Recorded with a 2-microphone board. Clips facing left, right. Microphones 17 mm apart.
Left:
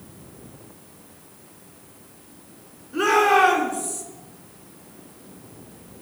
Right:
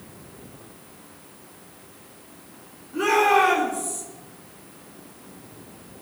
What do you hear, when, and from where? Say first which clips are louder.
2.9 s a shout: left 1 dB; 45° left (ahead or behind), 4 m